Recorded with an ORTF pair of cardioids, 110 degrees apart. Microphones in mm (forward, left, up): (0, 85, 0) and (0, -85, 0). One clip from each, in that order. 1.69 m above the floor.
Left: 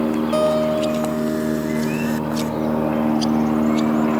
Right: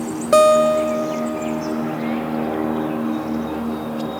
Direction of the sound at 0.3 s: 55° right.